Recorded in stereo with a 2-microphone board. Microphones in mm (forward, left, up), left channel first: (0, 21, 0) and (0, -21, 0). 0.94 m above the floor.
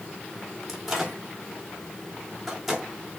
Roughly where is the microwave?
Centre.